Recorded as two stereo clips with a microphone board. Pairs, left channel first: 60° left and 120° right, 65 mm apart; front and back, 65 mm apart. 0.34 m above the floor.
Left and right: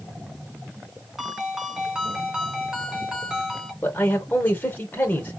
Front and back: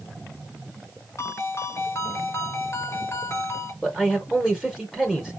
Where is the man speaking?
90° left, 1.1 m.